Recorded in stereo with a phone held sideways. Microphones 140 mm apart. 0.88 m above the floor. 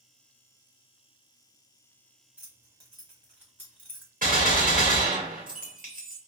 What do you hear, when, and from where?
2.4 s keys jangling: 15° right (ahead or behind), 1.3 m
4.2 s a gunshot: 80° right, 1.5 m